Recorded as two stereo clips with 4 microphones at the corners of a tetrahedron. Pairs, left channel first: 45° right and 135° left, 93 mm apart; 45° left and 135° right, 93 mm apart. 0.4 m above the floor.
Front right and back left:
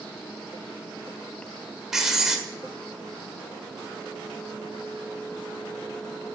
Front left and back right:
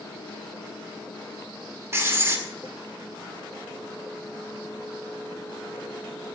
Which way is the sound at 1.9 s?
145° right.